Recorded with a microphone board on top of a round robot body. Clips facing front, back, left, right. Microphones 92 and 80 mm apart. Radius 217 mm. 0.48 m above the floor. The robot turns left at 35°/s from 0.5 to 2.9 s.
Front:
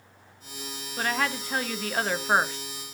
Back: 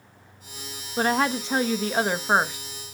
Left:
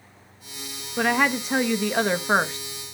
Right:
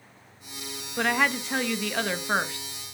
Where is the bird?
I don't hear a bird.